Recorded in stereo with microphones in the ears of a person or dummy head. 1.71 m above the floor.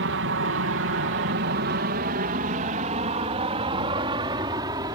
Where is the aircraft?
60° right (ahead or behind); by 5.0 s 15° right (ahead or behind).